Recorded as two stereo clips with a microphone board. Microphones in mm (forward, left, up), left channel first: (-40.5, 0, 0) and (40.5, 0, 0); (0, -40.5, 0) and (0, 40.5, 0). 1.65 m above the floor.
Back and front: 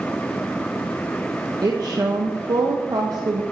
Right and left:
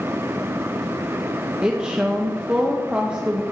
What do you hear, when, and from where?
1.6 s a woman speaking: 15° left, 0.7 m